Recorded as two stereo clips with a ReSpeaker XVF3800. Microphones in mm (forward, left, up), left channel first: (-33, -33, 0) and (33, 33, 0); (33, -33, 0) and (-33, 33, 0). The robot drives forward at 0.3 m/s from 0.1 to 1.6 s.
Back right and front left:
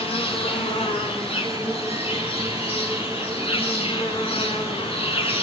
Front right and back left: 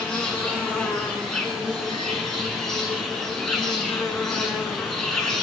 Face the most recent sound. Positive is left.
turn(degrees=-130)